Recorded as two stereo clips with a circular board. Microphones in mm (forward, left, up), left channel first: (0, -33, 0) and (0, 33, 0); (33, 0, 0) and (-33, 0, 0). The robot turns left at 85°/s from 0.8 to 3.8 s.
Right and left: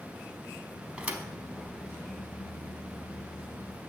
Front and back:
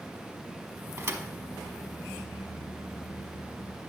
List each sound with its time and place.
1.0 s a thud: 160° left, 0.8 m; by 1.2 s 135° left, 0.8 m